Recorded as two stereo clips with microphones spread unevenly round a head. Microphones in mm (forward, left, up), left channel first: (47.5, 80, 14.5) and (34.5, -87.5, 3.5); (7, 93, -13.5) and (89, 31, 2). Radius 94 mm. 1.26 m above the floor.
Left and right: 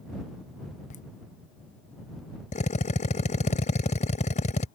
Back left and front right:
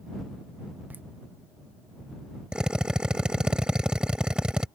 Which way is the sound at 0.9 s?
40° left.